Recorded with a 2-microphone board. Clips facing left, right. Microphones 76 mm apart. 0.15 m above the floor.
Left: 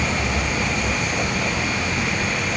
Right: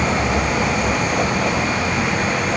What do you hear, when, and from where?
0.0 s a vehicle: 25° right (ahead or behind)